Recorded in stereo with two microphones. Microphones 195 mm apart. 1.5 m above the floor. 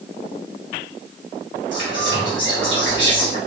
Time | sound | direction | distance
1.7 | whispering | 70° right (ahead or behind) | 1.7 m